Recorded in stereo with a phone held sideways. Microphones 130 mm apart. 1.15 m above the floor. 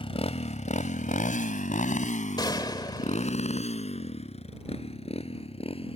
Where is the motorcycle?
45° left (ahead or behind).